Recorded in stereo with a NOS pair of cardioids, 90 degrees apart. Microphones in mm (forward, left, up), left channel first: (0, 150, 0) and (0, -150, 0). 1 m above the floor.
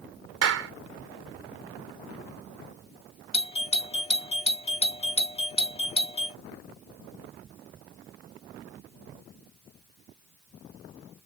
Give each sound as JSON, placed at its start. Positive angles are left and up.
{"t": 0.4, "sound": "a clap", "azimuth_deg": -55}
{"t": 3.3, "sound": "a doorbell", "azimuth_deg": 20}